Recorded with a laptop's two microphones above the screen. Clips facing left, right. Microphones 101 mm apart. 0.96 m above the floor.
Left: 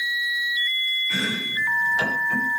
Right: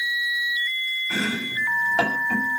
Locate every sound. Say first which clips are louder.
1.1 s chopping: right 2 dB; 75° right (ahead or behind), 6.5 m